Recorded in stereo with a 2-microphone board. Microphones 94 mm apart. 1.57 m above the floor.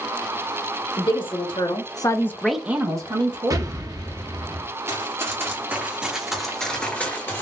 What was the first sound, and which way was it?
A woman speaking, 70° left (ahead or behind).